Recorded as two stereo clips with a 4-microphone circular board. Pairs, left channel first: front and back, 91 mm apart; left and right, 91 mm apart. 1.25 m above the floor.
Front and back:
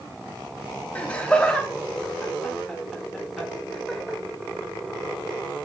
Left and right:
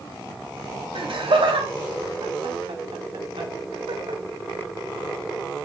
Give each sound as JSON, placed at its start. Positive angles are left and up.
{"t": 0.9, "sound": "laughter", "azimuth_deg": -75, "distance_m": 3.5}